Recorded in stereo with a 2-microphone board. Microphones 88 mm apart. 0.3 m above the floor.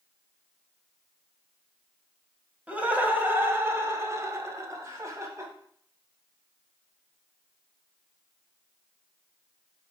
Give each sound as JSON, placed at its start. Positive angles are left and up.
{"t": 2.7, "sound": "laughter", "side_deg": -15, "distance_m": 1.5}